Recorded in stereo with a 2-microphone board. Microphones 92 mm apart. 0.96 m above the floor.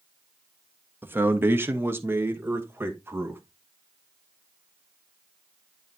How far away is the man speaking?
About 0.9 m.